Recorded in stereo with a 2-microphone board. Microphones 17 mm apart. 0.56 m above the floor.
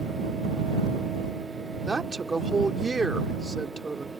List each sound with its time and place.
1.9 s a woman speaking: 45° right (ahead or behind)